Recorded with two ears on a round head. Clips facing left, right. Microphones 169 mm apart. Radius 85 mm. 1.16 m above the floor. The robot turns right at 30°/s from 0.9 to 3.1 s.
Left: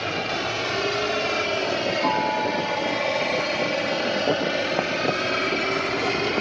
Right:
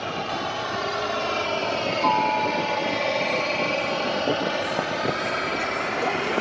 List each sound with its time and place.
0.0 s a helicopter: 25° left (ahead or behind); by 6.4 s 50° left (ahead or behind)